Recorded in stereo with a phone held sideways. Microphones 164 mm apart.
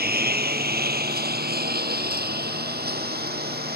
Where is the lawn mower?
85° right; by 3.8 s 90° right.